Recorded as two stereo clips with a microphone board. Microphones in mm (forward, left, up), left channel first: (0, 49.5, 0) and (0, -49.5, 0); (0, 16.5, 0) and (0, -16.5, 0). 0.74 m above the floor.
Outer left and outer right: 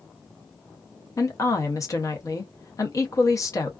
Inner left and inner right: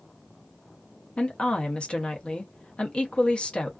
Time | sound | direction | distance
1.2 | a woman speaking | 35° left (ahead or behind) | 0.7 m